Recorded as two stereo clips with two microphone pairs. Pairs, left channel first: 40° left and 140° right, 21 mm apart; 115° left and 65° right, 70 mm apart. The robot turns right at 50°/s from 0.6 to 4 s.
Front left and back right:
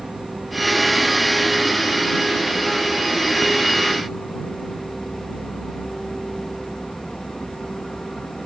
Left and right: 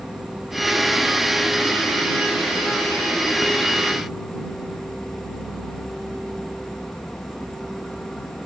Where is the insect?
140° right; by 8.5 s 30° left.